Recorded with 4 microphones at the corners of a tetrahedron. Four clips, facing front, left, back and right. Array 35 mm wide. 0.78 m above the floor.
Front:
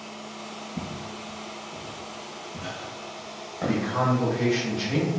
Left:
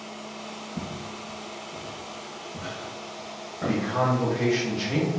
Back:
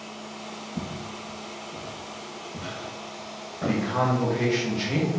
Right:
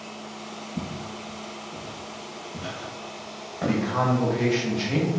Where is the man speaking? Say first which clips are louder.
Right 1 dB, even; 125° right, 0.7 m.